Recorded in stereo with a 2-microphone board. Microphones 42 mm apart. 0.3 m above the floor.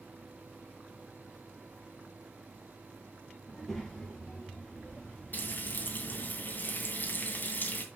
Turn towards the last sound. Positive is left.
turn(degrees=45)  # may be behind; listen again after turning